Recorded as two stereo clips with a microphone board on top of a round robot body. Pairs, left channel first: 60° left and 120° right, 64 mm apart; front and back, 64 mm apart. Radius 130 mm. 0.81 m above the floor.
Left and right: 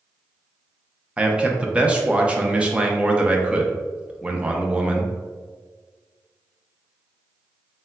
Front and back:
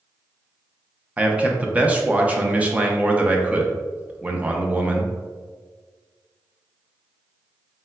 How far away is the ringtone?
I don't hear a ringtone.